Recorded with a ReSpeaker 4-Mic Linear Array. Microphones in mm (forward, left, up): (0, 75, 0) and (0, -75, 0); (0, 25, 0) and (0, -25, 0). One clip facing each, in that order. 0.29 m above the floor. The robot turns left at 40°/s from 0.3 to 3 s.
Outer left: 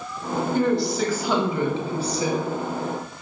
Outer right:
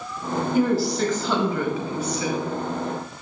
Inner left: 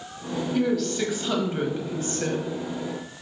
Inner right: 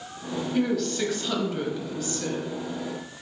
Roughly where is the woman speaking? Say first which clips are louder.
Outer right 1 dB, inner left 1 dB; behind.